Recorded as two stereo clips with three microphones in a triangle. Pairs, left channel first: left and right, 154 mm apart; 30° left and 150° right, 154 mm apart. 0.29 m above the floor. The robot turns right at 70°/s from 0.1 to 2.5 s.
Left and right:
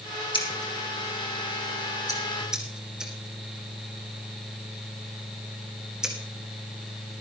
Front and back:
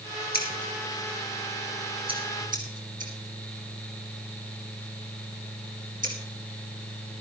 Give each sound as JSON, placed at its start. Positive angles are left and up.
{"t": 0.3, "sound": "scissors", "azimuth_deg": 35, "distance_m": 2.0}